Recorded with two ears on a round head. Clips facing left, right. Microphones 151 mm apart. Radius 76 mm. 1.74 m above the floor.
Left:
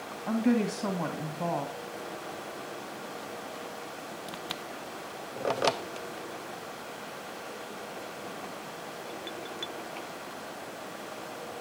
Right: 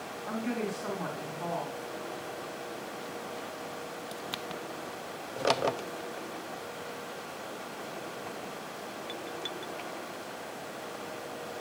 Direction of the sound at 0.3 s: 55° left (ahead or behind).